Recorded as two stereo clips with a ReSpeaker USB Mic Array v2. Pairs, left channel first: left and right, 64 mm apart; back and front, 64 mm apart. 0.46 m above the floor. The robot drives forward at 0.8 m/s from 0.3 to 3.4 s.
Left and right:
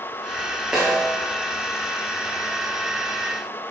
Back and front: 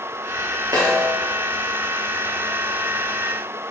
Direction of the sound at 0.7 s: 10° right.